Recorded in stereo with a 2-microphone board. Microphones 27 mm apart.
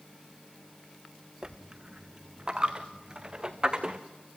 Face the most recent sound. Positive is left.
turn(degrees=-30)  # may be behind; listen again after turning